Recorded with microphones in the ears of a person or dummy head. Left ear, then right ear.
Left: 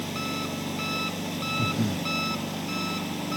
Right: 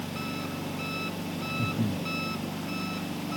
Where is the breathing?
70° left (ahead or behind).